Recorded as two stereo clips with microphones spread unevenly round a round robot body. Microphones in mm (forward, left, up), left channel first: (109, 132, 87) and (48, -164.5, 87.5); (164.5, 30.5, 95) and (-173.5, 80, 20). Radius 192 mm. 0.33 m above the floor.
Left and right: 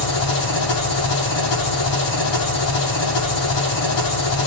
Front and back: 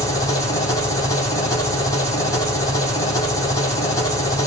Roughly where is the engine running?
Left.